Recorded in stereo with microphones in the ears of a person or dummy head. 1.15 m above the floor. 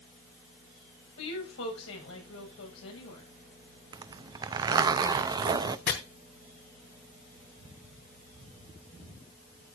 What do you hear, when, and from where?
1.2 s a woman speaking: 75° left (ahead or behind), 7 m
3.9 s a zipper: 25° right (ahead or behind), 0.7 m
5.9 s chopping: 60° left (ahead or behind), 3 m